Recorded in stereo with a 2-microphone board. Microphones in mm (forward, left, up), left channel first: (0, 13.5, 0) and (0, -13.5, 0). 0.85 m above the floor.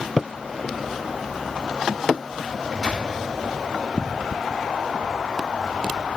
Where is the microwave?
30° right (ahead or behind), 1.8 m.